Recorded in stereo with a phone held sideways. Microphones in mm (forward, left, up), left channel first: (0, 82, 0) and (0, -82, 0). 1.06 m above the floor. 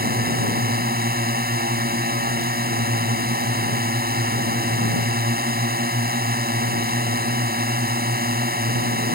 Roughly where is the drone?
Right.